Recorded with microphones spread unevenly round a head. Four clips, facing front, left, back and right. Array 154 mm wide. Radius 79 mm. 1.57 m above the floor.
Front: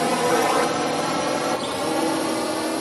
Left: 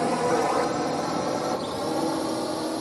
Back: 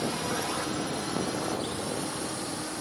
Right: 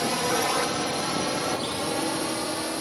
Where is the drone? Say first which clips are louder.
Left 3 dB, front 12 dB; 20° left; by 2.8 s 15° left.